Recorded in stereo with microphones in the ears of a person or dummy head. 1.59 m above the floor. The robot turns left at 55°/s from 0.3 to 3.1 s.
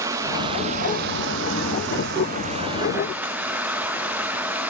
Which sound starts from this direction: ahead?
Running water, at 0.0 s.